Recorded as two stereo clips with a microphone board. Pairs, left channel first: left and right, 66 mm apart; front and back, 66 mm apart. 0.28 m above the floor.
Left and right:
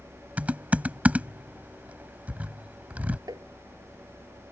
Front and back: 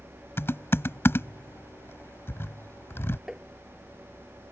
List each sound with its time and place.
0.4 s typing on a keyboard: 30° right
3.3 s tapping: 100° right